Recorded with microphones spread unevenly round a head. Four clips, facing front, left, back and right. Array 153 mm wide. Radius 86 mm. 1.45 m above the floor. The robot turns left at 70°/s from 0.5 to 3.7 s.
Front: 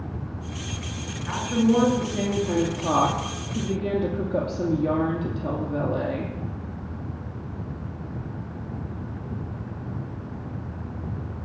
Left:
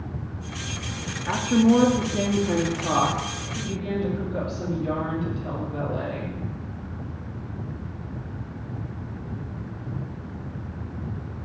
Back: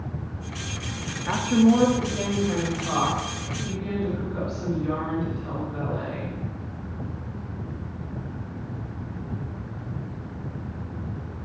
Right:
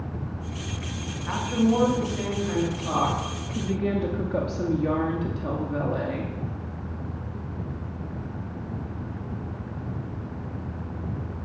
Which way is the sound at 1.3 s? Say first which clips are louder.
Left 4 dB, back 3 dB; 135° left.